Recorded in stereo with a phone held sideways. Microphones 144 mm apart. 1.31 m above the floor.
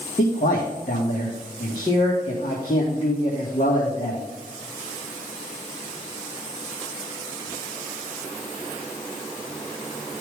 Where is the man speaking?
65° left (ahead or behind), 2.0 m.